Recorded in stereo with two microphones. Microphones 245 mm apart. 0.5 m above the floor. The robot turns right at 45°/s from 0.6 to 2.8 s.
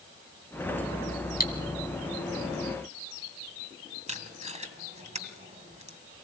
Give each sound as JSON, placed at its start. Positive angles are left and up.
{"t": 1.4, "sound": "cutlery clinking", "side_deg": 40, "distance_m": 2.0}
{"t": 4.1, "sound": "tape being pulled", "side_deg": -30, "distance_m": 1.7}